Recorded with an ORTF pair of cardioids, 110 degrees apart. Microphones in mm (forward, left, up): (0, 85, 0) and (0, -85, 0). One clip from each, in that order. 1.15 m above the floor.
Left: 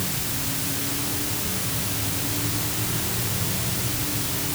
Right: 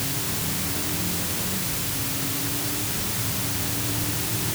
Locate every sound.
Only background noise.